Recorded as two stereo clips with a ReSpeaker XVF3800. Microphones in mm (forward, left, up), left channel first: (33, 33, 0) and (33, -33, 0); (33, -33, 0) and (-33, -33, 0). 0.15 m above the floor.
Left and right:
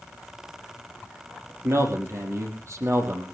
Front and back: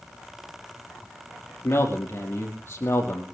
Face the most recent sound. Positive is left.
turn(degrees=-50)